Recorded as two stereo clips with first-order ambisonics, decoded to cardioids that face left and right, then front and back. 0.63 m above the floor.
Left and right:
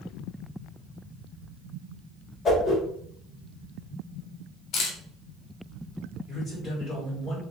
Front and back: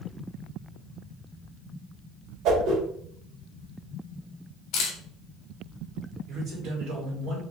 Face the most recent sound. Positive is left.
turn(degrees=145)